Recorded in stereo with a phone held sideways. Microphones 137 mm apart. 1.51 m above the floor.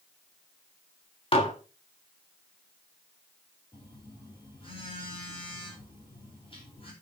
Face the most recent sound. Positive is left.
turn(degrees=40)  # may be behind; listen again after turning